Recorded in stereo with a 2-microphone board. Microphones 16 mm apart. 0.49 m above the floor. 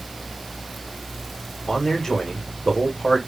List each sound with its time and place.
1.7 s a man speaking: 40° left (ahead or behind), 1.4 m